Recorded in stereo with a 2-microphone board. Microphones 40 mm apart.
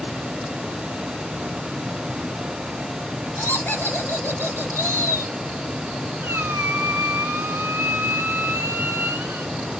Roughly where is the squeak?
Right.